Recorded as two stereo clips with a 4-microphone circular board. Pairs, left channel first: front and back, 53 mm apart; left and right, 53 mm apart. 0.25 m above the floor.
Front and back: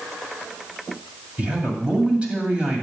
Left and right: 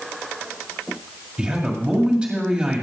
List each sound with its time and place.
1.4 s a man speaking: 135° right, 1.8 m